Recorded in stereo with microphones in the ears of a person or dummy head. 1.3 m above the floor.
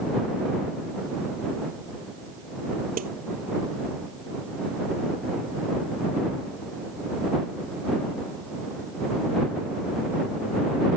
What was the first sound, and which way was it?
A snare drum, 45° right (ahead or behind).